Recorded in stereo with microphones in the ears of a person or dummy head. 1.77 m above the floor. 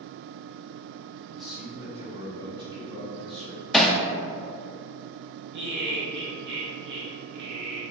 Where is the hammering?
5° left (ahead or behind), 0.7 m.